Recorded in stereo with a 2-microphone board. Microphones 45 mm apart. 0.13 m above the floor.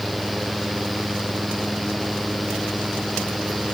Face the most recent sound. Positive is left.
No sound to turn to.